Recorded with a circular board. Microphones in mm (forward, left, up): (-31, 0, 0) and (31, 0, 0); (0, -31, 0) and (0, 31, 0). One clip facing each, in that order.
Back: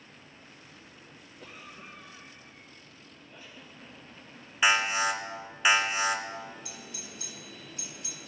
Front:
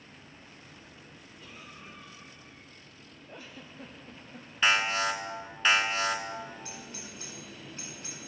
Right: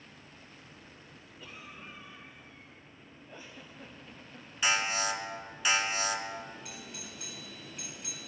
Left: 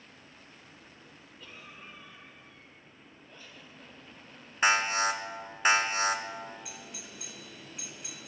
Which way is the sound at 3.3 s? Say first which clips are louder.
Front 4 dB, right 3 dB; 20° right.